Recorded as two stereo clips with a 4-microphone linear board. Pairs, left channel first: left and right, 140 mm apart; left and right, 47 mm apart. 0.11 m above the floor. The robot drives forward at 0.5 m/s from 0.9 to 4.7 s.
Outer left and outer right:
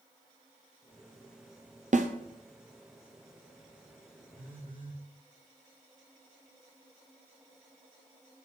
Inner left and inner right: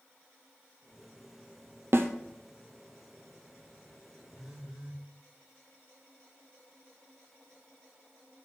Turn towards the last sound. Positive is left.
turn(degrees=-10)  # may be behind; listen again after turning